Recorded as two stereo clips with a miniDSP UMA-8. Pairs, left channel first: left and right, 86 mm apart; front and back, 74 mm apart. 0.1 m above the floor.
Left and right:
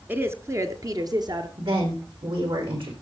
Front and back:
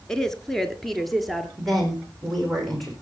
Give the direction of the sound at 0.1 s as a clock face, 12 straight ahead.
2 o'clock.